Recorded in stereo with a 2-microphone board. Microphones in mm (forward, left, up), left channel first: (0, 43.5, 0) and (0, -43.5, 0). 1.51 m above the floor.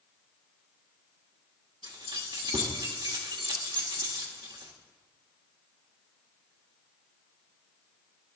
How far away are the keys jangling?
About 1.9 m.